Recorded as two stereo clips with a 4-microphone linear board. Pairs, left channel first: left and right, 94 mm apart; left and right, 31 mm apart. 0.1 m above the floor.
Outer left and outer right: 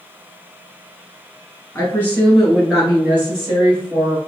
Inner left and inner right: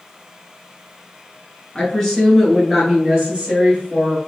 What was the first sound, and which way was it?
A woman speaking, 25° left (ahead or behind).